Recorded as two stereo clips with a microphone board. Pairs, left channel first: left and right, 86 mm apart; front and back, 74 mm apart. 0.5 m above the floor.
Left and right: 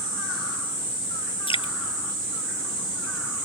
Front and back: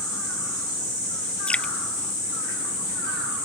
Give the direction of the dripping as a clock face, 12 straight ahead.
9 o'clock.